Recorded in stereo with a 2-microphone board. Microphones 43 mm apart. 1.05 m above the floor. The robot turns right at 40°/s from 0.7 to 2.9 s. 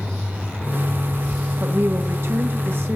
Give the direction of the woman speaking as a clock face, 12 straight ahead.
4 o'clock.